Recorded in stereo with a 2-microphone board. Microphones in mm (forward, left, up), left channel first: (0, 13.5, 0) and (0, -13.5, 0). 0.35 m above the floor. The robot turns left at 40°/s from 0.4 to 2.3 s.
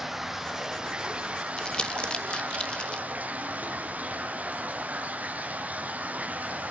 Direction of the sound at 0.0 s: 5° right.